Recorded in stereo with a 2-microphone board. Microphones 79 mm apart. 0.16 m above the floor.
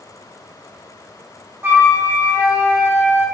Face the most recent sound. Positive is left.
turn(degrees=-30)  # may be behind; listen again after turning